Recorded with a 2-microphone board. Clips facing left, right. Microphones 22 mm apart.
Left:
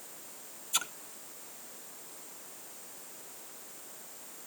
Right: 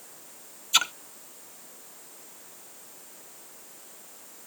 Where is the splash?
50° right (ahead or behind).